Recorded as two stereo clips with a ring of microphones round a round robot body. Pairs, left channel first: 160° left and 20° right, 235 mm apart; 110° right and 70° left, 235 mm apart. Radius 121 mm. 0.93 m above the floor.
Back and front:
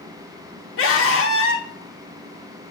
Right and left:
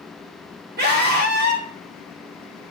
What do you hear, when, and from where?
0.8 s a scream: 120° left, 2.5 m